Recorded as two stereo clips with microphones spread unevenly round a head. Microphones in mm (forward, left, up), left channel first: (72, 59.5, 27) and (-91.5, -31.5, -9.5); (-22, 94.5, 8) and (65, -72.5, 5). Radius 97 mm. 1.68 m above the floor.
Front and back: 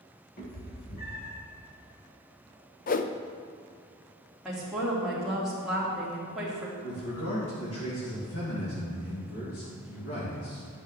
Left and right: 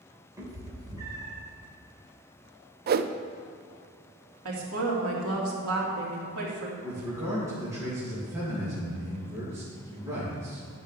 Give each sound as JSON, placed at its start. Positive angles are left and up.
{"t": 0.4, "sound": "a cat meowing", "azimuth_deg": 5, "distance_m": 2.0}
{"t": 2.9, "sound": "a whoosh", "azimuth_deg": -25, "distance_m": 0.5}
{"t": 4.5, "sound": "a woman speaking", "azimuth_deg": -60, "distance_m": 2.5}
{"t": 6.8, "sound": "a man speaking", "azimuth_deg": 10, "distance_m": 3.0}